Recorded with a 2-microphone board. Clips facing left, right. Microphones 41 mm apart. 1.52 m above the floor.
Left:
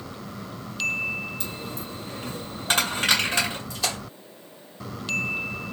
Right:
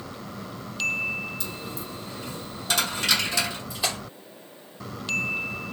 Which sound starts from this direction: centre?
A splash, at 3.7 s.